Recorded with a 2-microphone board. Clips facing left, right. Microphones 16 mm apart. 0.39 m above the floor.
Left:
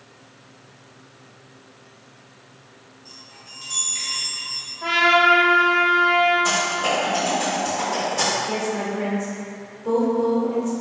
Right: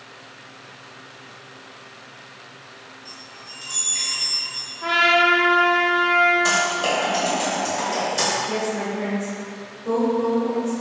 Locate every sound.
3.0 s a chime: 10° right (ahead or behind), 1.6 m
4.8 s a trumpet: 20° left (ahead or behind), 1.3 m
6.5 s typing on a keyboard: 30° right (ahead or behind), 1.9 m
8.5 s a woman speaking: 40° left (ahead or behind), 1.1 m